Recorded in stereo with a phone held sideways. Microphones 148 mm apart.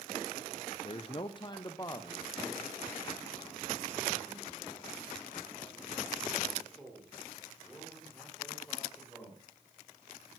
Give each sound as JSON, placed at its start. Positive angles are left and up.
{"t": 0.8, "sound": "a man speaking", "side_deg": 40, "distance_m": 0.7}